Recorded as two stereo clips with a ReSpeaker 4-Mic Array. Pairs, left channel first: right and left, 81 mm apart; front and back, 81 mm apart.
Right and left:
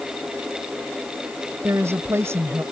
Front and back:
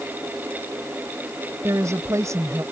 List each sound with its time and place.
1.6 s a woman speaking: 140° left